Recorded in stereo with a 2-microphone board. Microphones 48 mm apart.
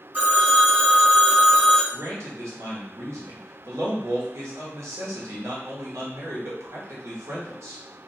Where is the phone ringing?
35° right (ahead or behind), 1.2 m.